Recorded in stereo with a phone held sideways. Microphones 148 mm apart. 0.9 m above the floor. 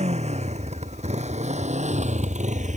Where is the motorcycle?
50° right (ahead or behind); by 2.8 s 55° right (ahead or behind).